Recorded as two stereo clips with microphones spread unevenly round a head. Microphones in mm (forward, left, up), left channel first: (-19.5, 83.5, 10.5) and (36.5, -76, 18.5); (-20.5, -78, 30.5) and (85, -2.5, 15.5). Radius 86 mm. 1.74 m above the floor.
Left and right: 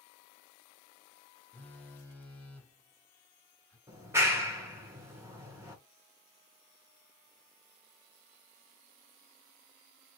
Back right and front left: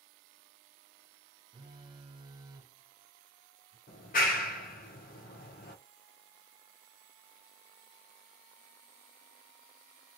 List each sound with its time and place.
1.5 s a phone buzzing: 40° left, 0.7 m
3.9 s a clap: 145° right, 1.1 m